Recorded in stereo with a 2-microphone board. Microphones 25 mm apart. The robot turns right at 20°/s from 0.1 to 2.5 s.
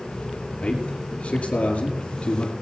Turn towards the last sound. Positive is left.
turn(degrees=75)  # may be behind; listen again after turning